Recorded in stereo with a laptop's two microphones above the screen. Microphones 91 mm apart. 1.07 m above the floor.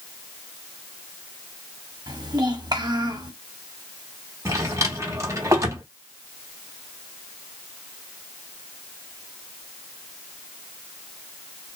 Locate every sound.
2.1 s a child speaking: 45° right (ahead or behind), 1.1 m
4.5 s a drawer: 35° right (ahead or behind), 0.9 m